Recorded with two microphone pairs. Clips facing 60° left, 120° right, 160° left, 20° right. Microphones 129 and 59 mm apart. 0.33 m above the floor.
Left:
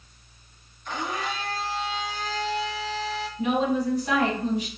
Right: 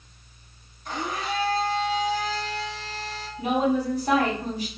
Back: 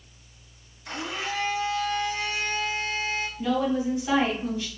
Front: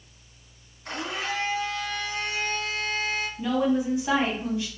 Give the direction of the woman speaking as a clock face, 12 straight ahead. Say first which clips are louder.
Right 1 dB, front 1 dB; 3 o'clock.